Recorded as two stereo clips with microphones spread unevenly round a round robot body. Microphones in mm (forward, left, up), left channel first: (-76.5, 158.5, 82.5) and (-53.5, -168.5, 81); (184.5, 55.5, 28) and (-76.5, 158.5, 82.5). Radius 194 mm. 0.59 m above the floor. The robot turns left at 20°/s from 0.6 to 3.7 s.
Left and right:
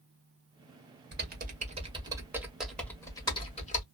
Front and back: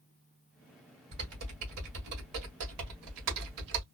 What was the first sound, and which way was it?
Typing on a keyboard, 145° right.